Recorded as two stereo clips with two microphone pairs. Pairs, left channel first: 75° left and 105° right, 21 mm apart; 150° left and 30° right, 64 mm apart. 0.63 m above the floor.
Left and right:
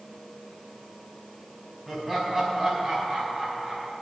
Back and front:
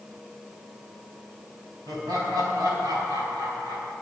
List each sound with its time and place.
1.9 s laughter: 35° right, 4.5 m; by 3.9 s 45° right, 6.5 m